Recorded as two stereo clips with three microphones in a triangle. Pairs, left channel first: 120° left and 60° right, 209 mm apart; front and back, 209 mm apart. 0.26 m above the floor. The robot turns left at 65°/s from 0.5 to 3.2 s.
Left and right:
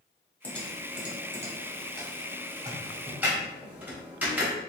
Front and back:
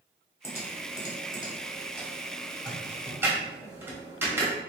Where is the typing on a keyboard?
50° left, 1.2 m; by 4.5 s 125° right, 1.2 m.